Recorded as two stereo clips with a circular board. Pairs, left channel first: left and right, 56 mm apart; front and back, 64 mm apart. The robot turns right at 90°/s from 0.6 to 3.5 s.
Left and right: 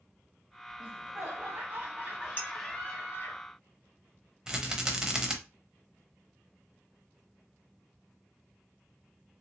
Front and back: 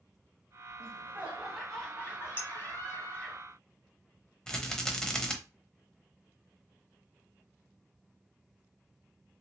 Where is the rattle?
50° right, 0.7 m.